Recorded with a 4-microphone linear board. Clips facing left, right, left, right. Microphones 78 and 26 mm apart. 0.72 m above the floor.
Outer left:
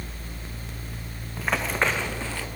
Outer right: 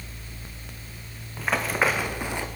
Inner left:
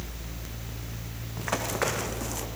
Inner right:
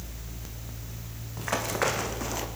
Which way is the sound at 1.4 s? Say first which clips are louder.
Outer right 1 dB, inner right 1 dB; centre (ahead or behind).